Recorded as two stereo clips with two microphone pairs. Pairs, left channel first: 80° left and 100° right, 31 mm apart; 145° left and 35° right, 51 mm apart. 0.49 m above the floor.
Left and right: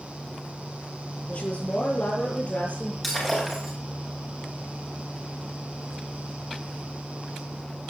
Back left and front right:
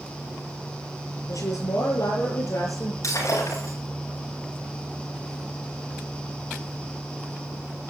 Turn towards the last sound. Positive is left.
turn(degrees=160)